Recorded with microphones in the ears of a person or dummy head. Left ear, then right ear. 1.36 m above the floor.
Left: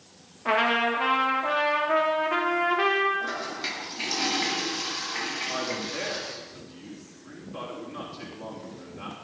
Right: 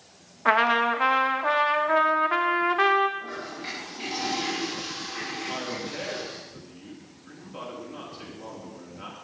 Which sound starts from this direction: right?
A trumpet, at 0.5 s.